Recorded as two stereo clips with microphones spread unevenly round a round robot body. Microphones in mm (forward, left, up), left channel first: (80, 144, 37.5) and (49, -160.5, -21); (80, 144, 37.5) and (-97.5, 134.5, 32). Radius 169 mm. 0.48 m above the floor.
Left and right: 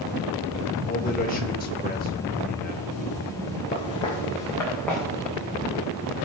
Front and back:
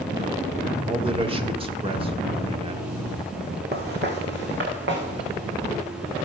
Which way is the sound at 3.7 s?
155° left.